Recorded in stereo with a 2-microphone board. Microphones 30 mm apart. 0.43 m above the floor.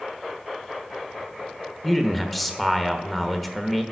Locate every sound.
1.8 s a man speaking: 5° left (ahead or behind), 1.1 m